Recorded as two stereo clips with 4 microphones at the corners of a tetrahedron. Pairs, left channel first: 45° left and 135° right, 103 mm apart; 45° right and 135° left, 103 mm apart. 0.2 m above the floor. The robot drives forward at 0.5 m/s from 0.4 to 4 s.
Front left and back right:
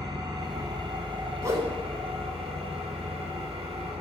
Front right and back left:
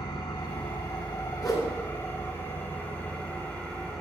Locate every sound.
0.0 s an engine running: 85° right, 1.9 m; by 4.0 s 130° right, 2.5 m
1.4 s a whoosh: 85° right, 2 m; by 1.7 s 90° right, 2 m